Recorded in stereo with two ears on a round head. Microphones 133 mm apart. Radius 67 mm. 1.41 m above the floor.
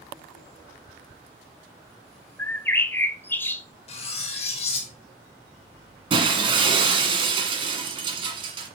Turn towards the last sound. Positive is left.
turn(degrees=-35)  # may be behind; listen again after turning